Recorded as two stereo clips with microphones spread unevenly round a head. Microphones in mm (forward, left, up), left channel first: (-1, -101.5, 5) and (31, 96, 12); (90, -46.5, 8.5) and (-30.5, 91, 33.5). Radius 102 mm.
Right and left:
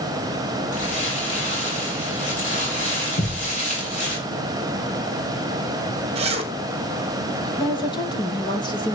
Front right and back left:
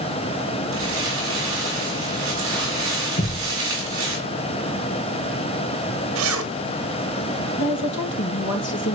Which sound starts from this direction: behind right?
Crumpling, at 0.7 s.